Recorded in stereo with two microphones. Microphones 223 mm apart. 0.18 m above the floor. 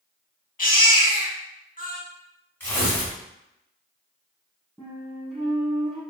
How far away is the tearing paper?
About 1.8 m.